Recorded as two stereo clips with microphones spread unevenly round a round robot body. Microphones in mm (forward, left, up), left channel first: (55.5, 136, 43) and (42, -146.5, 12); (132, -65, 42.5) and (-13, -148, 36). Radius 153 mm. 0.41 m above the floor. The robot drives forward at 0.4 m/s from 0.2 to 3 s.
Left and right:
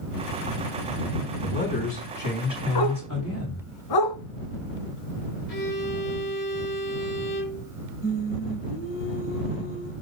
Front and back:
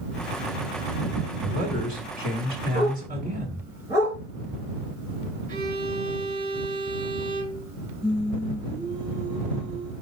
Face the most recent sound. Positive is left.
turn(degrees=110)